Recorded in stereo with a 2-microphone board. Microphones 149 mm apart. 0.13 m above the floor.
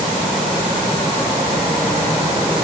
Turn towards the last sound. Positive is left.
No sound to turn to.